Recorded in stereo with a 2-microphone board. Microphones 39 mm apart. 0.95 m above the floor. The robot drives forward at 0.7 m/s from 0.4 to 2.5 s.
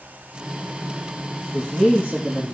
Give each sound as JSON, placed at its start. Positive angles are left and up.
{"t": 1.5, "sound": "a man speaking", "side_deg": -50, "distance_m": 0.8}